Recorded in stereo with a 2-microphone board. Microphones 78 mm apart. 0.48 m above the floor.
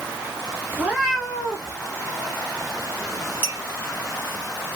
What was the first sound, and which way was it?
A cat meowing, 25° right (ahead or behind).